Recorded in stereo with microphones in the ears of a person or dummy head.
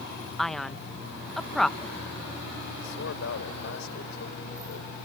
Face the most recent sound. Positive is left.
turn(degrees=75)  # may be behind; listen again after turning